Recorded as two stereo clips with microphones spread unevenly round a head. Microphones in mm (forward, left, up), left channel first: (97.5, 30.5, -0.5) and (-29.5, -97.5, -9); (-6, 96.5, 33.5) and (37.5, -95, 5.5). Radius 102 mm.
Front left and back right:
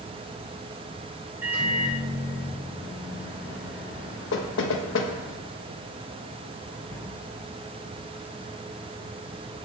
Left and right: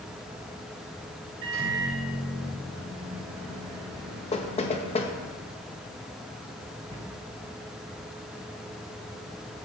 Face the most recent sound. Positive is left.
turn(degrees=-30)